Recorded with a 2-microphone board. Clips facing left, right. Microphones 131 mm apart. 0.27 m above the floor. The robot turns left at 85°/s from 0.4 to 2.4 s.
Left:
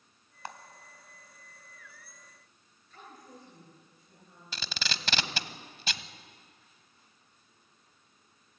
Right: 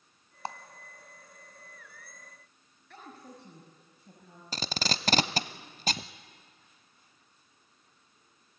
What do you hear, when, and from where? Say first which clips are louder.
0.5 s a clap: right 5 dB; 30° right (ahead or behind), 1.1 m; by 0.6 s 25° right (ahead or behind), 1.1 m
2.9 s a woman speaking: right 2 dB; 70° right (ahead or behind), 5.5 m
4.5 s tape being pulled: right 6 dB; 40° right (ahead or behind), 0.7 m